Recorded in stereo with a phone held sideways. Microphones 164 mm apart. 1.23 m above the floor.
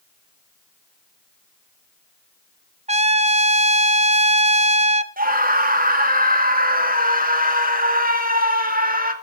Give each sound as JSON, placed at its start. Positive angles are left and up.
{"t": 2.9, "sound": "a trumpet", "side_deg": -40, "distance_m": 0.8}
{"t": 5.2, "sound": "a scream", "side_deg": -60, "distance_m": 2.0}